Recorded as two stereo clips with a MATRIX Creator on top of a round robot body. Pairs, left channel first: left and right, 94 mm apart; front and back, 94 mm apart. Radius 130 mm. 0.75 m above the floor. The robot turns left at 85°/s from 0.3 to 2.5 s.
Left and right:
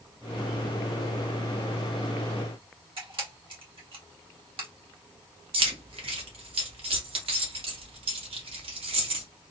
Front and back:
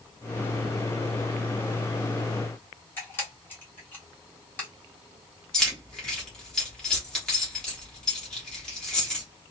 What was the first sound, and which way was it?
A camera shutter, 70° right.